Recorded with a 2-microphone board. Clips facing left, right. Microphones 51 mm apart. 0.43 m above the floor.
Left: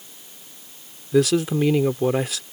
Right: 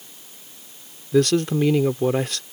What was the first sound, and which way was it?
A man speaking, 5° left (ahead or behind).